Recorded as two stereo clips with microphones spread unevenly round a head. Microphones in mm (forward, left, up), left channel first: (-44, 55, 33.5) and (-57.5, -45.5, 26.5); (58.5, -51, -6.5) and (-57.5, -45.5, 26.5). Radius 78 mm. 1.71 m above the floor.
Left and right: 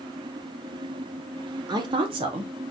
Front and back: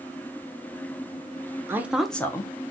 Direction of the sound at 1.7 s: 135° right.